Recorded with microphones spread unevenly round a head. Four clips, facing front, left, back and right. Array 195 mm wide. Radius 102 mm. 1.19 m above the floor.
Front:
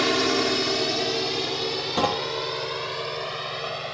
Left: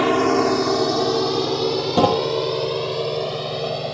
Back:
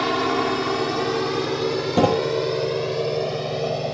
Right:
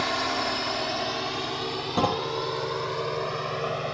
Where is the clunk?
145° left.